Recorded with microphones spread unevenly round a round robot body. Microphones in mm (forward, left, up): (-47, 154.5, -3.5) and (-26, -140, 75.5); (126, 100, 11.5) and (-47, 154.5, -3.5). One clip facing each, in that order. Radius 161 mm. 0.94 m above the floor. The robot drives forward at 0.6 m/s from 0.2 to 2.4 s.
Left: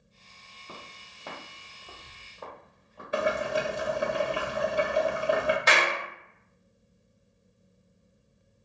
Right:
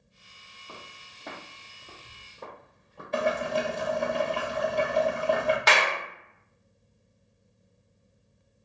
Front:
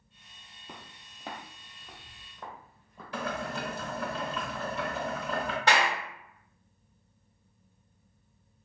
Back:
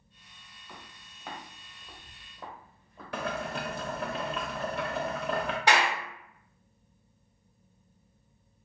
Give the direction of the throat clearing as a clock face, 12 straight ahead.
I don't hear throat clearing.